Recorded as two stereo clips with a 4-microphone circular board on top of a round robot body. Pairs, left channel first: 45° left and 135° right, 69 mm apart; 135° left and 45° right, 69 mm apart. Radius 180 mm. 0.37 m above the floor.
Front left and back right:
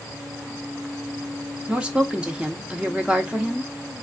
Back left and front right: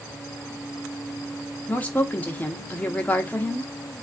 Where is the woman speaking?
170° left, 0.9 m.